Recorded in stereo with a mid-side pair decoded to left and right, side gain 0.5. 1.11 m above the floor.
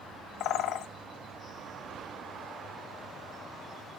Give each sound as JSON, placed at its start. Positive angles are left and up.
{"t": 0.4, "sound": "a bird", "azimuth_deg": 70, "distance_m": 0.7}